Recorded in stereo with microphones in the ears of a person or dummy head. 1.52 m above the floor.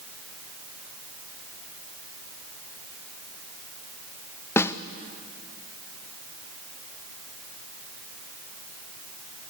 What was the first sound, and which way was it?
A snare drum, 10° left (ahead or behind).